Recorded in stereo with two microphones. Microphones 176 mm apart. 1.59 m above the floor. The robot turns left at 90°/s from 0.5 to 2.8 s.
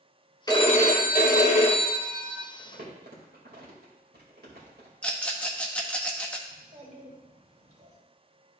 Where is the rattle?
10° left (ahead or behind), 0.9 m.